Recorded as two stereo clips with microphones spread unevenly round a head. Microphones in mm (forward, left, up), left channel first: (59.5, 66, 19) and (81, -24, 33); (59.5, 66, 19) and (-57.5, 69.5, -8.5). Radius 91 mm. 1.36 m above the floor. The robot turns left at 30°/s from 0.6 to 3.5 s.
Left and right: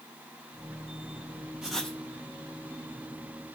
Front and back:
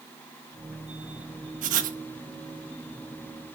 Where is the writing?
155° right, 0.9 m; by 2.0 s 170° right, 0.9 m.